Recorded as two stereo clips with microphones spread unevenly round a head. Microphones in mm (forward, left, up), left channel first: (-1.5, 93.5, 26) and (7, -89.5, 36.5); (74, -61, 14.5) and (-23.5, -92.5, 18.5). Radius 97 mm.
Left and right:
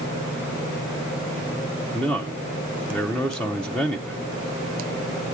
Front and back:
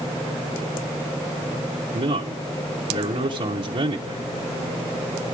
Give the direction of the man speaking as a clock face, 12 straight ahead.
6 o'clock.